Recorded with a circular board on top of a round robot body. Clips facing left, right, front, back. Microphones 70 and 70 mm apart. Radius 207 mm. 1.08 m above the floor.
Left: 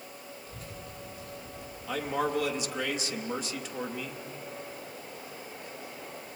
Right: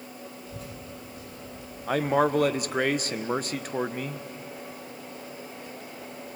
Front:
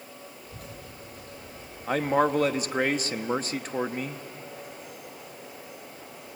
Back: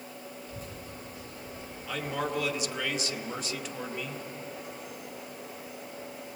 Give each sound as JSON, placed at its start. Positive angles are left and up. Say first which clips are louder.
{"t": 0.5, "sound": "a child speaking", "louder": "right 4 dB, back 1 dB", "azimuth_deg": -40, "distance_m": 10.0}
{"t": 1.9, "sound": "a man speaking", "louder": "right 7 dB, front 9 dB", "azimuth_deg": -50, "distance_m": 1.2}